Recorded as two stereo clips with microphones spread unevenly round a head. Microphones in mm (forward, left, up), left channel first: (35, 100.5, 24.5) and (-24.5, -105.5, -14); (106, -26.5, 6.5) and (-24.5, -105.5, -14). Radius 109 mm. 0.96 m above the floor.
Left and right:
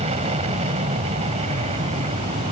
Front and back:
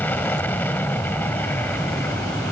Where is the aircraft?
45° right.